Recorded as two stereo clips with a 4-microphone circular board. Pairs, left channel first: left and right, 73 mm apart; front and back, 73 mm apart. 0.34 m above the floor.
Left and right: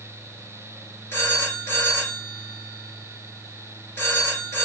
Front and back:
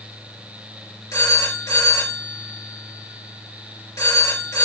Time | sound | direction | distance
1.1 | a phone ringing | 35° left | 4 m